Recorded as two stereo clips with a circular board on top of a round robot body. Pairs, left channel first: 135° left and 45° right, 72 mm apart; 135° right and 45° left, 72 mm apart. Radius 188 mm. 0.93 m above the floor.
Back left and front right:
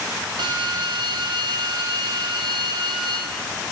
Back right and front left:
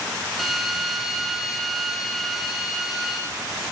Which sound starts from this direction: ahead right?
A drill, at 0.4 s.